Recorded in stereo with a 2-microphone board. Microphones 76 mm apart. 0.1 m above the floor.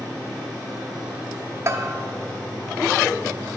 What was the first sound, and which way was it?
A bell, 40° right (ahead or behind).